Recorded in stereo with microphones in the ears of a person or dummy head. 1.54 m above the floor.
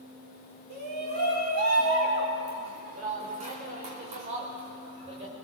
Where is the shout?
60° right (ahead or behind), 3.5 m; by 5.3 s 35° right (ahead or behind), 5.5 m.